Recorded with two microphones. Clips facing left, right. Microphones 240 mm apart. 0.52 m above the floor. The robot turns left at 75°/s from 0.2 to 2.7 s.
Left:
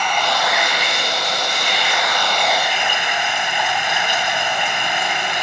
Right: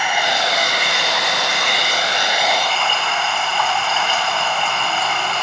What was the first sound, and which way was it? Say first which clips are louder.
Running water: even; 10° right.